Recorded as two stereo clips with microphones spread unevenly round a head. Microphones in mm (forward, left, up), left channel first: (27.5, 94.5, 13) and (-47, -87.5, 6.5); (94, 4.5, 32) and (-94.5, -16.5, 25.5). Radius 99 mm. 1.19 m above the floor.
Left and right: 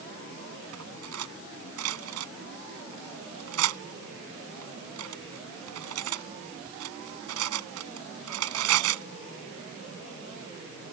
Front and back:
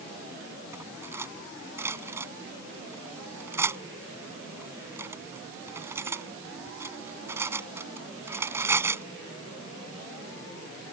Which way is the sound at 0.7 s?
95° right.